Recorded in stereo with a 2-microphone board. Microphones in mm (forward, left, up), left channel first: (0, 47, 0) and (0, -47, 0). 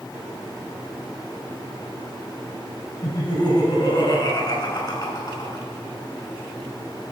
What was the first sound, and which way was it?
Laughter, 50° left (ahead or behind).